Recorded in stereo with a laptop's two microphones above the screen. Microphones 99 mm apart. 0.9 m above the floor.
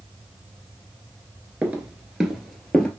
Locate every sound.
1.6 s footsteps: 15° right (ahead or behind), 0.9 m; by 2.9 s 10° left (ahead or behind), 1.2 m